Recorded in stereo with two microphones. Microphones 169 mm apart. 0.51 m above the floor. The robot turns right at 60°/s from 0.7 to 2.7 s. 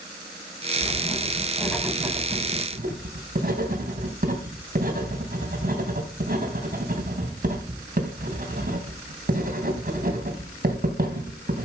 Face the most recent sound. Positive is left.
turn(degrees=-55)  # may be behind; listen again after turning